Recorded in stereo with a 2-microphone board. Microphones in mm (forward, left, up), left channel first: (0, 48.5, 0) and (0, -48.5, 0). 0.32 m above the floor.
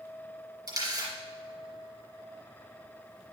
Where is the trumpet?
I don't hear a trumpet.